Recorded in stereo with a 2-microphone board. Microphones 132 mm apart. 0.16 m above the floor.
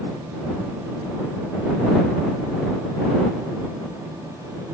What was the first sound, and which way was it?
Only background noise.